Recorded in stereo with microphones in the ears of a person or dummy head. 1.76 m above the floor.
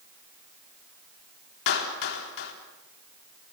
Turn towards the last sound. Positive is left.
turn(degrees=65)  # may be behind; listen again after turning